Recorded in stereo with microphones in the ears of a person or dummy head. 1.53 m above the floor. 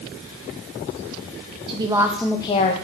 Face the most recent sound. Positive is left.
turn(degrees=45)  # may be behind; listen again after turning